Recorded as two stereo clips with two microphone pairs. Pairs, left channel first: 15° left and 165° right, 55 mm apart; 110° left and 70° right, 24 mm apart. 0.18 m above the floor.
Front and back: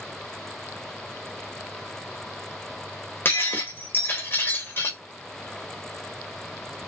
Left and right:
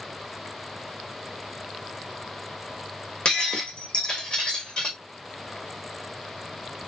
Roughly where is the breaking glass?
Ahead left.